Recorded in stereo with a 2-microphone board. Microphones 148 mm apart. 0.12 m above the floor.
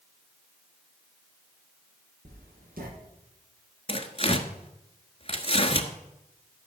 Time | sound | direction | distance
2.2 | writing | 85° right | 5.5 m
3.9 | tearing paper | 40° left (ahead or behind) | 1.2 m